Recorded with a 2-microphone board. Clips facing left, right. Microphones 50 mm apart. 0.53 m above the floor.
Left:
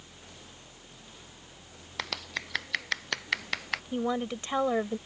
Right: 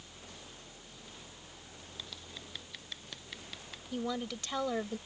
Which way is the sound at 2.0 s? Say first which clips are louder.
Left 14 dB; 70° left (ahead or behind).